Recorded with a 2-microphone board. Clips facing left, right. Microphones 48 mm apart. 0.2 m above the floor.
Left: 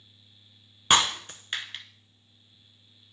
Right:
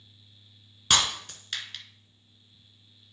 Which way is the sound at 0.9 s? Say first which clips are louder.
Left 3 dB; 25° left (ahead or behind).